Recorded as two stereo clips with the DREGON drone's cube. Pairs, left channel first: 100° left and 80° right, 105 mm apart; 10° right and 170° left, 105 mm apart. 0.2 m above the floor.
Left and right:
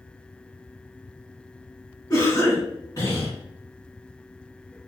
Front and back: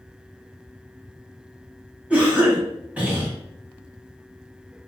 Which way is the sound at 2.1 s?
100° left.